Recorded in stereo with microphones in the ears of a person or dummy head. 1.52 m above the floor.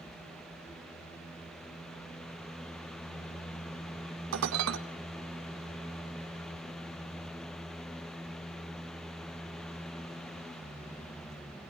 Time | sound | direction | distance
4.3 | dishes clattering | 70° right (ahead or behind) | 1.5 m